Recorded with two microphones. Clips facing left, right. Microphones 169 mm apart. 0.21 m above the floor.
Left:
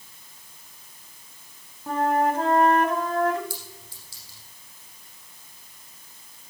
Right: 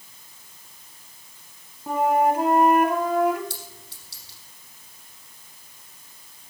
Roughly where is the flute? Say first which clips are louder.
Right 2 dB; centre.